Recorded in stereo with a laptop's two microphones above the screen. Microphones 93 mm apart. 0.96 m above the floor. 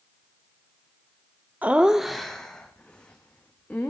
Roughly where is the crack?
I don't hear a crack.